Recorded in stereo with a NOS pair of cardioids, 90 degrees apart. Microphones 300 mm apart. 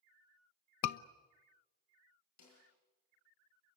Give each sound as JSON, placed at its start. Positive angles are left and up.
{"t": 0.8, "sound": "a scream", "azimuth_deg": 70, "distance_m": 1.0}
{"t": 2.4, "sound": "a snare drum", "azimuth_deg": 65, "distance_m": 9.0}